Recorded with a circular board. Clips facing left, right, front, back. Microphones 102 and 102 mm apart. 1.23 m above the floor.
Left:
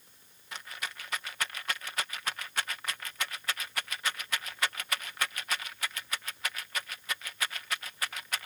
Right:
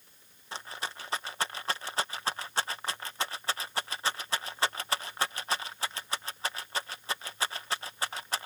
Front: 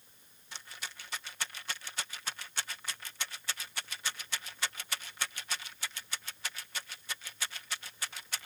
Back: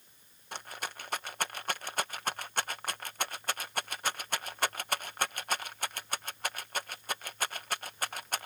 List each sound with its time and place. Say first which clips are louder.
0.5 s a rattle: right 3 dB, back 7 dB; 150° right